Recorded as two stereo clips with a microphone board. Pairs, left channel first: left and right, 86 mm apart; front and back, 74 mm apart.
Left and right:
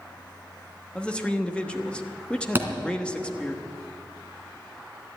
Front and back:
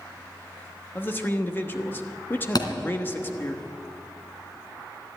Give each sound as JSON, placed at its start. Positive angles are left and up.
{"t": 0.9, "sound": "a man speaking", "azimuth_deg": 25, "distance_m": 1.1}
{"t": 2.5, "sound": "a thud", "azimuth_deg": -25, "distance_m": 2.0}